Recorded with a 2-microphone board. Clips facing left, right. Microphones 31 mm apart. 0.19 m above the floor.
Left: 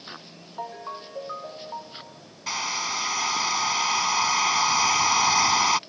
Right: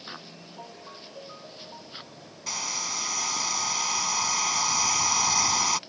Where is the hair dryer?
25° left (ahead or behind).